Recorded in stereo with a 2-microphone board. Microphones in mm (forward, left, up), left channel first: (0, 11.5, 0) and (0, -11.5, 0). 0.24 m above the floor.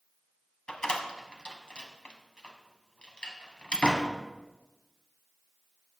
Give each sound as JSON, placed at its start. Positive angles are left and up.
{"t": 0.7, "sound": "a door slam", "side_deg": 50, "distance_m": 1.1}